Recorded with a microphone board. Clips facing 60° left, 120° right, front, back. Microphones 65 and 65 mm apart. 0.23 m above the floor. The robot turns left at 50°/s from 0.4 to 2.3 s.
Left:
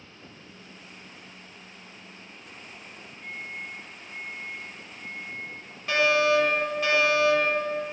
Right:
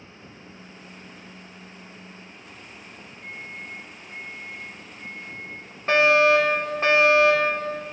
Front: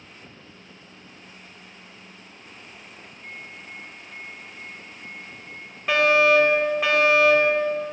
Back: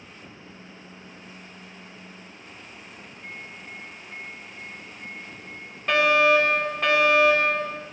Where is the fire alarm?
85° right, 3.5 m.